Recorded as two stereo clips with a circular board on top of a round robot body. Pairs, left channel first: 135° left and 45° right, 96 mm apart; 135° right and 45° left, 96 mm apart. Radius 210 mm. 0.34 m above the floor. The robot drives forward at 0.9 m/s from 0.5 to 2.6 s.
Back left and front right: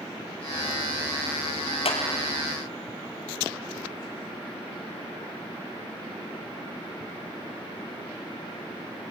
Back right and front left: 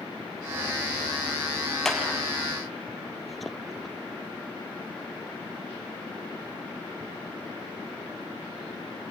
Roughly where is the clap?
Behind left.